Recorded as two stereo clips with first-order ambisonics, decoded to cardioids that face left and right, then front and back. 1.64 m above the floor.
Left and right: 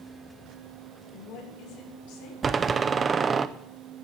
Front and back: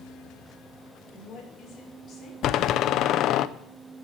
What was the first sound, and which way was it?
A woman speaking, 60° left.